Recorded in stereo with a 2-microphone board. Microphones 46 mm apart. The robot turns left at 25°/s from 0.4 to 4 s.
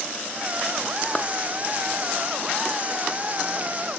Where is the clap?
25° left (ahead or behind), 1.4 m; by 1.3 s 30° left (ahead or behind), 1.4 m.